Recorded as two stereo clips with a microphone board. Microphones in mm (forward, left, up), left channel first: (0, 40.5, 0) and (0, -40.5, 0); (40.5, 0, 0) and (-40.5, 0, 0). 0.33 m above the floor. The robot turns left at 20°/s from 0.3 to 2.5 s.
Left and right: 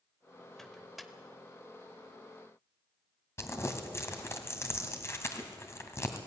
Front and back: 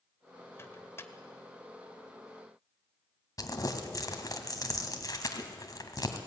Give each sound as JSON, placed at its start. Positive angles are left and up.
{"t": 0.6, "sound": "a microwave", "azimuth_deg": 5, "distance_m": 1.2}
{"t": 3.4, "sound": "crumpling", "azimuth_deg": 35, "distance_m": 2.0}